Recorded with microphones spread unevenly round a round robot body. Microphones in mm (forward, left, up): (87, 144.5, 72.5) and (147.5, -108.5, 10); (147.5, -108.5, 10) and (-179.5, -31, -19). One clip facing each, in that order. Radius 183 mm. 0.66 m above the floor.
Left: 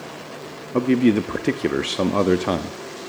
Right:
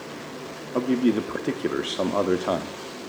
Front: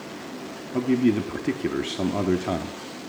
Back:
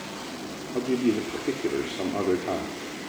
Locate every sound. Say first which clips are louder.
0.7 s a man speaking: left 4 dB, front 3 dB; 45° left, 1.0 m